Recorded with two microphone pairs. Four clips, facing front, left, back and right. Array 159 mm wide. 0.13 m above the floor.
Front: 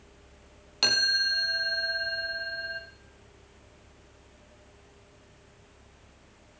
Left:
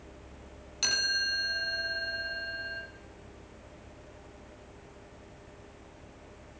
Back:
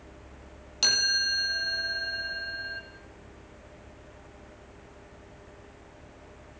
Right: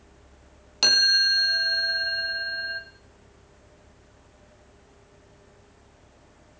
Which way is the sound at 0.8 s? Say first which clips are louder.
Right 7 dB, front 2 dB; 70° right.